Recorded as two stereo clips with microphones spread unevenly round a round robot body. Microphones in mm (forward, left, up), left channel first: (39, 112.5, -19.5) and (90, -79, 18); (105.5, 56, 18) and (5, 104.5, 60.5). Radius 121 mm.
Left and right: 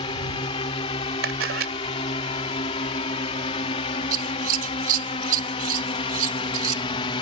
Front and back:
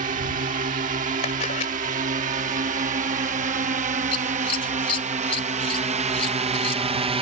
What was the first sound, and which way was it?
A drone, 175° left.